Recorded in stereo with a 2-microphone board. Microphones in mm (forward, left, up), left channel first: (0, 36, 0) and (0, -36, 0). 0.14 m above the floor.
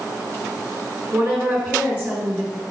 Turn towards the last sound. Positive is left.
turn(degrees=-15)  # may be behind; listen again after turning